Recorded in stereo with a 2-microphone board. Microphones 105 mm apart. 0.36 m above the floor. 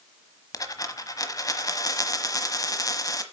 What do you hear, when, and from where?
0.5 s a dropped coin: 35° left (ahead or behind), 1.1 m